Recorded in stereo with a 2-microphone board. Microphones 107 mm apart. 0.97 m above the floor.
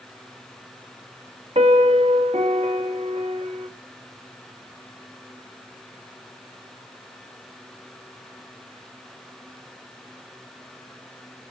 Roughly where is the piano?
Right.